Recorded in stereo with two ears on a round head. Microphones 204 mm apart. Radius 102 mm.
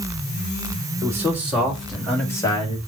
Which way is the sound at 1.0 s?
10° right (ahead or behind).